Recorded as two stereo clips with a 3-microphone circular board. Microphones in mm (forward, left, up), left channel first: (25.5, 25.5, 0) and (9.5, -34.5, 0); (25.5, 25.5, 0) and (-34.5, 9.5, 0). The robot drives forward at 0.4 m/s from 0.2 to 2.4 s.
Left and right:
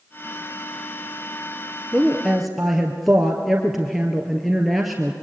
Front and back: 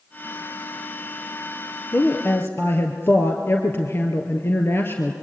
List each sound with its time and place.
1.9 s a woman speaking: 20° right, 2.5 m